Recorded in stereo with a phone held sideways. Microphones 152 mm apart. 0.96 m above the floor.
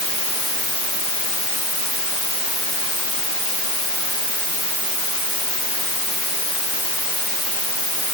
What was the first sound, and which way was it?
Only background noise.